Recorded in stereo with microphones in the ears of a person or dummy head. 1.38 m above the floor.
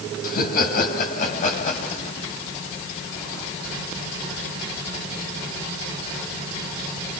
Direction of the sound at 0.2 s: 55° left (ahead or behind).